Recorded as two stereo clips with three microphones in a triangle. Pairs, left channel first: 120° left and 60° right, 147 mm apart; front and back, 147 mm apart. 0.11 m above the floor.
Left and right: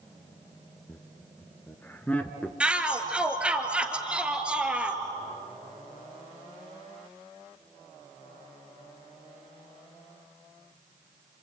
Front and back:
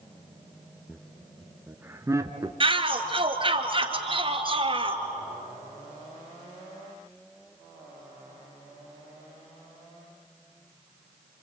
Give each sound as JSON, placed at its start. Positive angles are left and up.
{"t": 0.9, "sound": "laughter", "azimuth_deg": 75, "distance_m": 1.1}
{"t": 2.6, "sound": "a shout", "azimuth_deg": -140, "distance_m": 1.9}